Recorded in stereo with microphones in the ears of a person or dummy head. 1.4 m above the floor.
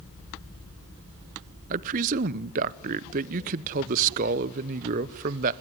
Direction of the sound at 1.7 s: 45° right (ahead or behind).